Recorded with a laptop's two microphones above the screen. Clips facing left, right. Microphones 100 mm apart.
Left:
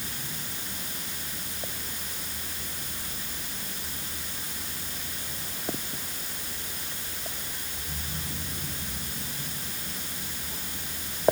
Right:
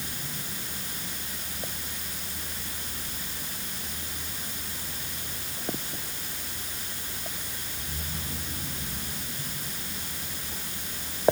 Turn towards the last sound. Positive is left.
No sound to turn to.